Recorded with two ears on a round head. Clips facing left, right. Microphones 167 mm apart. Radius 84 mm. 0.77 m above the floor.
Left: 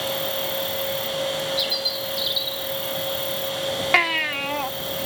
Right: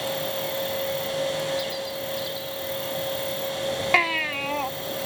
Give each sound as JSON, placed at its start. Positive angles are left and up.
{"t": 0.0, "sound": "an insect", "side_deg": 5}
{"t": 1.6, "sound": "a bird", "side_deg": 40}
{"t": 3.9, "sound": "a baby crying", "side_deg": 5}